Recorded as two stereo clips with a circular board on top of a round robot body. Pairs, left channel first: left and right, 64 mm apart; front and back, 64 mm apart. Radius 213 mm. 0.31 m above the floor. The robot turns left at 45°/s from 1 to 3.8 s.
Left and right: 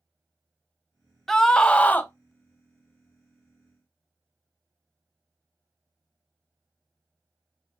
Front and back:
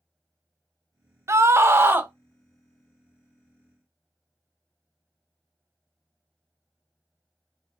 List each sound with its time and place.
1.3 s a scream: 170° left, 1.0 m; by 2.1 s 135° left, 1.0 m